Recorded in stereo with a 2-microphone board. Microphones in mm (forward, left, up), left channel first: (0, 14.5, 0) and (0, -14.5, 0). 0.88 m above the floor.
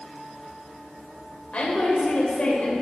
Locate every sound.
1.5 s a woman speaking: 40° left (ahead or behind), 3 m